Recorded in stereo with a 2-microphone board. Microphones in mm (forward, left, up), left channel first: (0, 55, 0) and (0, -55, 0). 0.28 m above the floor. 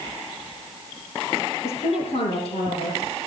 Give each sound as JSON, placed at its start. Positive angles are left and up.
{"t": 1.6, "sound": "a woman speaking", "side_deg": 70, "distance_m": 8.0}